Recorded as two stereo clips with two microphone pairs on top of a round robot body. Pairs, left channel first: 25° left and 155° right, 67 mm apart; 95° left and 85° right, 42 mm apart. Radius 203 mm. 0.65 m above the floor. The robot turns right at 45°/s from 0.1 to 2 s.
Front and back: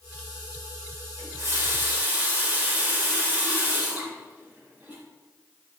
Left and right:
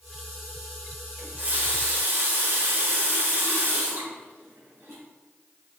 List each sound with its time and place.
1.2 s a running tap: 125° right, 2.5 m; by 5.0 s 90° right, 2.5 m